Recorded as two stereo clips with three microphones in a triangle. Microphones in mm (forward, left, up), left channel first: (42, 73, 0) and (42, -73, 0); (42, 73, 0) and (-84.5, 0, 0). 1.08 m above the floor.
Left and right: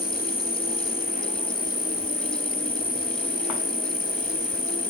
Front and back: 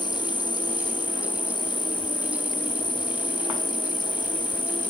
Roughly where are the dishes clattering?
No dishes clattering in this recording.